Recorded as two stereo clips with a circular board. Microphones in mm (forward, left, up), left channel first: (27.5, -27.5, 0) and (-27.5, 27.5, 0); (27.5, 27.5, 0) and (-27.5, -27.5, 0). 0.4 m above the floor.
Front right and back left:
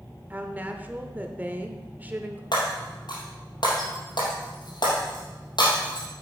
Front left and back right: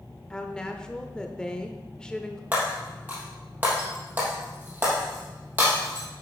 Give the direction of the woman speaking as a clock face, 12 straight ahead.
8 o'clock.